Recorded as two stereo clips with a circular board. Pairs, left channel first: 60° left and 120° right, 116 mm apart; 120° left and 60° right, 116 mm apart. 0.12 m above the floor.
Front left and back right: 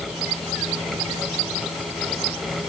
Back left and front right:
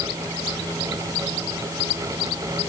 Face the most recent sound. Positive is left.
No sound to turn to.